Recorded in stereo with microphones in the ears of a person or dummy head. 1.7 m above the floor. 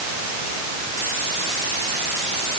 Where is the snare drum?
No snare drum in this recording.